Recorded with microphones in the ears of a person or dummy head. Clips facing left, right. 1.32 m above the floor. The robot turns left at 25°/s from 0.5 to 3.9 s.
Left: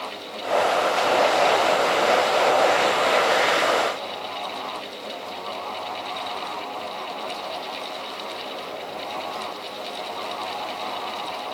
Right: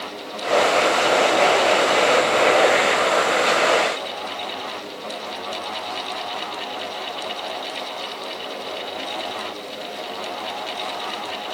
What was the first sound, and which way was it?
Only background noise.